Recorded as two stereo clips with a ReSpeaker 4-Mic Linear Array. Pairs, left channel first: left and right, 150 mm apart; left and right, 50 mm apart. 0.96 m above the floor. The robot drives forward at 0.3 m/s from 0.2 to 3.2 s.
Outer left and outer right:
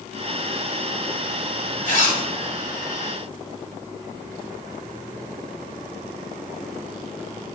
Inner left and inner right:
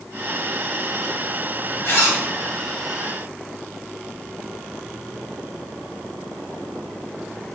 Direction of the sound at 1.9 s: 60° left (ahead or behind).